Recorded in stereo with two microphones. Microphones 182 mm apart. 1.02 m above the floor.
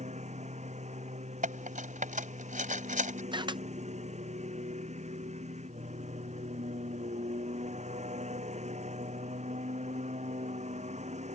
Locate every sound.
0.0 s a lawn mower: 40° right (ahead or behind)
1.4 s cutlery clinking: 45° right (ahead or behind)
3.3 s a camera shutter: 25° right (ahead or behind)